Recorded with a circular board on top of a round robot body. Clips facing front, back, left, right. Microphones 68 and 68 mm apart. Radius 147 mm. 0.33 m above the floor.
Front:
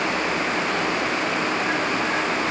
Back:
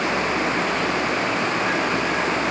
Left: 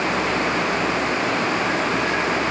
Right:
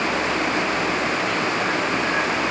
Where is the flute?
No flute in this recording.